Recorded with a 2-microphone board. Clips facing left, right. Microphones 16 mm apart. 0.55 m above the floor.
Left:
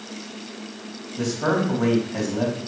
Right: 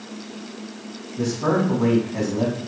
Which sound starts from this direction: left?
A man speaking, at 1.2 s.